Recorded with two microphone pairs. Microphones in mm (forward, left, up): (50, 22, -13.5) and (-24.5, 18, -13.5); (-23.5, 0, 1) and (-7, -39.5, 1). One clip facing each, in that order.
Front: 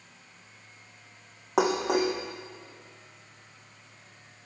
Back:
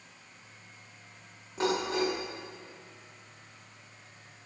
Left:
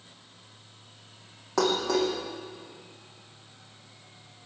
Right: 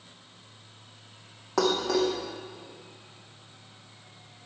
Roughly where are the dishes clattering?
Ahead.